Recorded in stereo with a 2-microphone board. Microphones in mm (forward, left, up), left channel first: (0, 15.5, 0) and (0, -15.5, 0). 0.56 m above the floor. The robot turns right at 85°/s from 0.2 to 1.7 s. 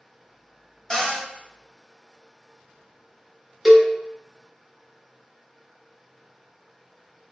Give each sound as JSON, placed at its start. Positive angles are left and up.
{"t": 0.9, "sound": "a cupboard door", "side_deg": 25, "distance_m": 1.0}
{"t": 3.6, "sound": "a cowbell", "side_deg": -5, "distance_m": 0.5}